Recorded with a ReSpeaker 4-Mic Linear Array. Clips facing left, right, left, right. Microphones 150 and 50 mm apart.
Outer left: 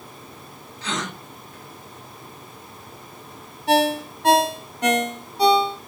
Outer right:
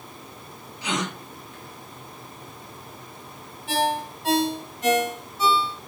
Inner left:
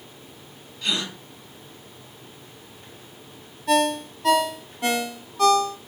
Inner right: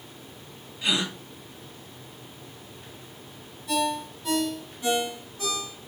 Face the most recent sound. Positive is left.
turn(degrees=65)  # may be behind; listen again after turning